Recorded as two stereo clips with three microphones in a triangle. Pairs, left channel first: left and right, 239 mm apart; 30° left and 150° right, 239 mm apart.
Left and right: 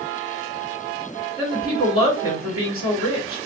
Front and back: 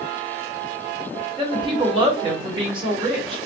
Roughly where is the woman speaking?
Right.